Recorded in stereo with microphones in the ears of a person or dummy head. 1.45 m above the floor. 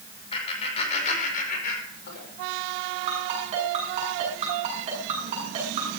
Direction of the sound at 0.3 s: 30° left (ahead or behind).